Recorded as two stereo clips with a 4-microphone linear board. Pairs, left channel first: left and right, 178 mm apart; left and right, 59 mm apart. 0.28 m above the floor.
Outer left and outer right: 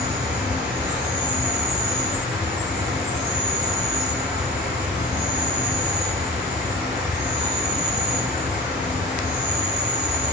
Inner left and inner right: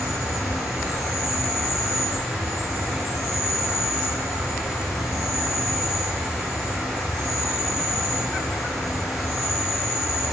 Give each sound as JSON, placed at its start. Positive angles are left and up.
{"t": 0.0, "sound": "an insect", "side_deg": -5, "distance_m": 1.0}